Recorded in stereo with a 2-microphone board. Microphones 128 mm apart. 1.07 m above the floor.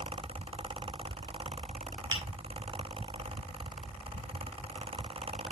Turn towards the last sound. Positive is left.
turn(degrees=-35)  # may be behind; listen again after turning